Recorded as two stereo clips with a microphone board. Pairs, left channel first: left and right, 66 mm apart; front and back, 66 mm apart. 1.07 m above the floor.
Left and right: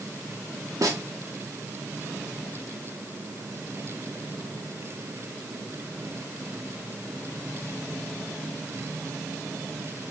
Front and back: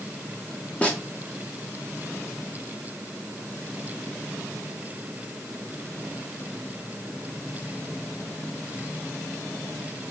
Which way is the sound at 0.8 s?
70° right.